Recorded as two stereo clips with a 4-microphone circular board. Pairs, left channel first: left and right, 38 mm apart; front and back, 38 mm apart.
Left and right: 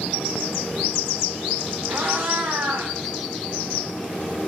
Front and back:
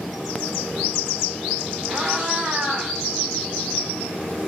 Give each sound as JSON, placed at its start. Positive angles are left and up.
{"t": 1.9, "sound": "a cat meowing", "azimuth_deg": -115, "distance_m": 1.5}